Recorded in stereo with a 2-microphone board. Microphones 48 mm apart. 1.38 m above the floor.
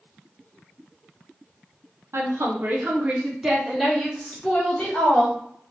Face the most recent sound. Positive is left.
turn(degrees=20)  # may be behind; listen again after turning